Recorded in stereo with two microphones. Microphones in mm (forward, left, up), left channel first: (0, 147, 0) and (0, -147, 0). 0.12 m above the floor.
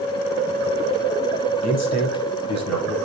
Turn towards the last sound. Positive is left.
turn(degrees=60)  # may be behind; listen again after turning